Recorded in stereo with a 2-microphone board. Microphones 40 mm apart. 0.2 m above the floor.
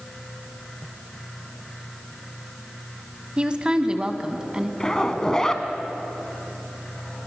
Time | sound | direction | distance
3.4 | a woman speaking | 25° right (ahead or behind) | 1.2 m
4.8 | a zipper | 15° left (ahead or behind) | 1.4 m